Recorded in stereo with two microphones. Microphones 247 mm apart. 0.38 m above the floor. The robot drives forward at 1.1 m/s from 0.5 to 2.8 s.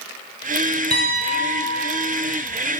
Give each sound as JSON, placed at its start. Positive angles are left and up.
{"t": 0.9, "sound": "a piano", "side_deg": -40, "distance_m": 3.0}